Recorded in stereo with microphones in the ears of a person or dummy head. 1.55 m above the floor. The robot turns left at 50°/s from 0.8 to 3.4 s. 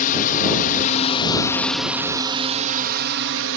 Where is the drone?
50° left; by 3.6 s 80° right.